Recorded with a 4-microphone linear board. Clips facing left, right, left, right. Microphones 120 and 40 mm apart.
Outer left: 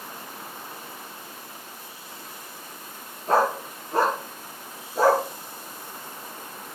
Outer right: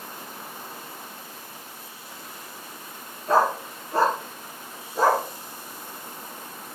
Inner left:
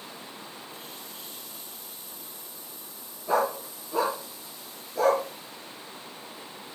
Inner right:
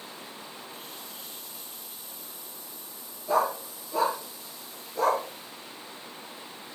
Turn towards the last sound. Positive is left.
turn(degrees=5)  # may be behind; listen again after turning